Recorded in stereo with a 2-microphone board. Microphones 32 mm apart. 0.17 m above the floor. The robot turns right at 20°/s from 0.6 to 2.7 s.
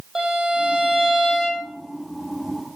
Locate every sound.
0.1 s a violin: 15° right (ahead or behind), 4 m; by 1.6 s 5° left (ahead or behind), 4 m